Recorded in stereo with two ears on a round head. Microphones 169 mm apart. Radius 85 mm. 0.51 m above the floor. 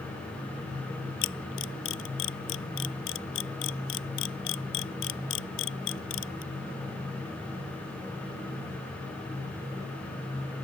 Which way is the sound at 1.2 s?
80° left.